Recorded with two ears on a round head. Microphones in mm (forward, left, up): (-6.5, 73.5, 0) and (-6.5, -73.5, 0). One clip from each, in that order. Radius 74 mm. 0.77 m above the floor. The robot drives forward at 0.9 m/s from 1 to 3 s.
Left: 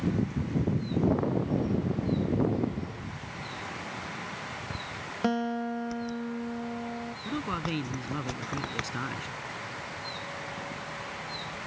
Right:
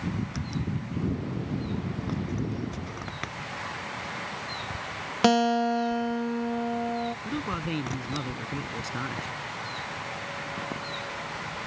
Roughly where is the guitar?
Right.